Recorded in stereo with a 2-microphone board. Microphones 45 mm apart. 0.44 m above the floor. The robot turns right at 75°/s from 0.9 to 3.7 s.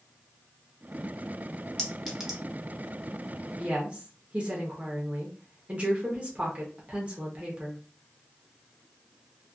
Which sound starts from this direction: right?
A woman speaking, at 3.6 s.